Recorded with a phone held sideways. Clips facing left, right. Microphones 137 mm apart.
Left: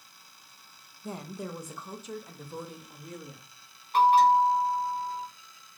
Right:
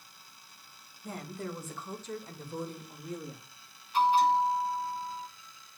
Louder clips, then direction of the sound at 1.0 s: Left 1 dB; 25° left (ahead or behind).